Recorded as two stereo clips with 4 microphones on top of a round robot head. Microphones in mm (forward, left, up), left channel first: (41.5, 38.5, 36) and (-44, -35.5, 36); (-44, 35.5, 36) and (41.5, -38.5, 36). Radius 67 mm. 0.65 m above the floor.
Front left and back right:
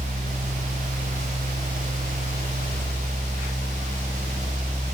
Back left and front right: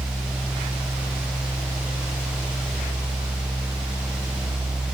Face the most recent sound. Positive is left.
No sound to turn to.